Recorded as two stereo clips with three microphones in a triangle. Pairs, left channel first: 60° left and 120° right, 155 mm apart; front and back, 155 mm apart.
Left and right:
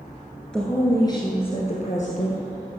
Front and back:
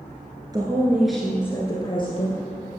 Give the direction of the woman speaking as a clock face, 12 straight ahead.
7 o'clock.